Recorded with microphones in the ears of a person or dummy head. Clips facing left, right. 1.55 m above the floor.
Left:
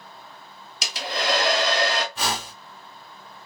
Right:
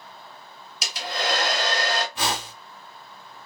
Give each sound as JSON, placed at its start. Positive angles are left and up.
{"t": 0.8, "sound": "a hair dryer", "side_deg": 65, "distance_m": 0.9}
{"t": 2.1, "sound": "a whoosh", "side_deg": -5, "distance_m": 1.2}